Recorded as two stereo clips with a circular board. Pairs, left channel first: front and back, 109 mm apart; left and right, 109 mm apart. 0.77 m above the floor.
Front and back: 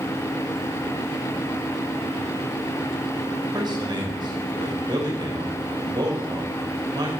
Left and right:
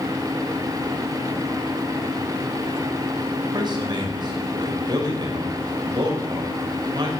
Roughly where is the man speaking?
Behind right.